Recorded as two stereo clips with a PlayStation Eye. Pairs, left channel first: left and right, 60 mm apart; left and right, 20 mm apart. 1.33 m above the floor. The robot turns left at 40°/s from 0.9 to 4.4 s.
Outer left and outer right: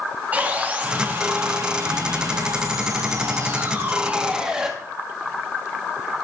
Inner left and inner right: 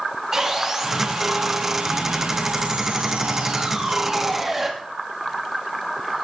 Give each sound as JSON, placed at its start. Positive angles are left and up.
{"t": 0.3, "sound": "sawing", "azimuth_deg": -30, "distance_m": 2.0}